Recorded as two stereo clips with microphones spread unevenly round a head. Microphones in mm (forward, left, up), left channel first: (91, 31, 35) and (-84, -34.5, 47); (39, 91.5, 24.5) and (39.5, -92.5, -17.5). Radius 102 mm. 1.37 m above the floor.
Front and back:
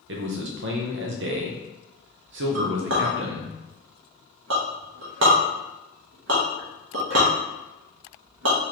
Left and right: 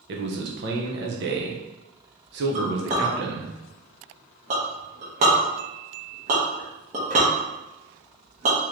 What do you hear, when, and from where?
0.1 s a man speaking: 130° right, 0.8 m
2.5 s a clink: 150° right, 1.0 m